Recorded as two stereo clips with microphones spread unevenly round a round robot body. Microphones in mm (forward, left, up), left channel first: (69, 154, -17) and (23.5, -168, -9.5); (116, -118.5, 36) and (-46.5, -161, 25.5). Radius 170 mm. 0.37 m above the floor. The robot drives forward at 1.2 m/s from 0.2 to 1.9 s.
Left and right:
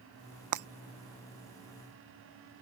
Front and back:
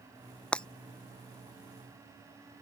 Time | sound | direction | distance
0.5 | breaking glass | 70° right | ?